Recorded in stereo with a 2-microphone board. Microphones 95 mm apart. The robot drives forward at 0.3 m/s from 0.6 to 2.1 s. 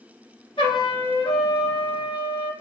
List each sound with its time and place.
0.6 s a trumpet: 60° left (ahead or behind), 2.5 m